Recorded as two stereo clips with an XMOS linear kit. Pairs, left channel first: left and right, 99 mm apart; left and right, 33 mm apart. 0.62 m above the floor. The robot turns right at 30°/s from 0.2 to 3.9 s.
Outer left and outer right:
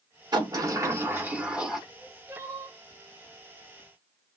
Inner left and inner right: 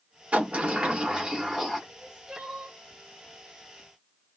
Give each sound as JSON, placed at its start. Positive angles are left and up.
{"t": 0.3, "sound": "a sliding door", "azimuth_deg": -45, "distance_m": 0.7}
{"t": 1.9, "sound": "crying", "side_deg": -25, "distance_m": 1.4}